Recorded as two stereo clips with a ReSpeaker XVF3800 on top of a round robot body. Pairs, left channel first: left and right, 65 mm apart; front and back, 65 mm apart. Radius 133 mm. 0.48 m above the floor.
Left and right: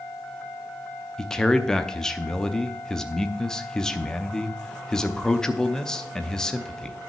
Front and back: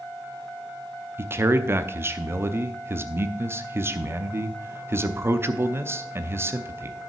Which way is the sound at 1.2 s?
165° left.